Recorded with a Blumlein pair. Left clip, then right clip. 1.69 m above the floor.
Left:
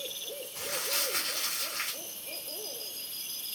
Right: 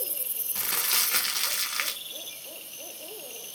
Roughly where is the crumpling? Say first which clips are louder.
Right 5 dB; ahead right.